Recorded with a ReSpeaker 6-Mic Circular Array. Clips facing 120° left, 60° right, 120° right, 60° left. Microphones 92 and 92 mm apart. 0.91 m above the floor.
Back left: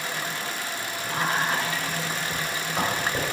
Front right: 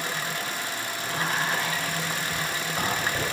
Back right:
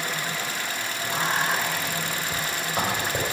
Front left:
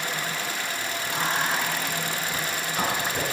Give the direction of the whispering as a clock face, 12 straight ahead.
6 o'clock.